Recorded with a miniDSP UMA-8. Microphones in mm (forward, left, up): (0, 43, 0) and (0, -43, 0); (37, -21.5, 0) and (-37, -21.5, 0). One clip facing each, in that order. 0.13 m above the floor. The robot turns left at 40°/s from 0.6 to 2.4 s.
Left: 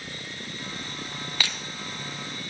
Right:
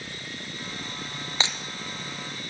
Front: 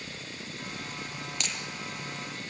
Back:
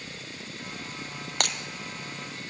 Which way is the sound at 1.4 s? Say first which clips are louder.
Right 2 dB, back 9 dB; 155° right.